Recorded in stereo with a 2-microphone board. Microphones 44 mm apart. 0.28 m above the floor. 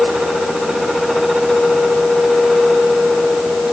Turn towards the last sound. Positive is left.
No sound to turn to.